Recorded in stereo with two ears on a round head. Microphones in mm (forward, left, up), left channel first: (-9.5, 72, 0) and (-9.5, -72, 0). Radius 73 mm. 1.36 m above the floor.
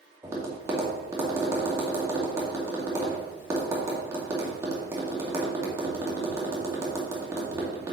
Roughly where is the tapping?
Centre.